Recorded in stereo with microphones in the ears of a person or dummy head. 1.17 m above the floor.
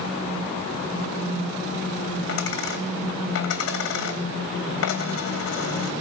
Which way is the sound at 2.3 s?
75° left (ahead or behind).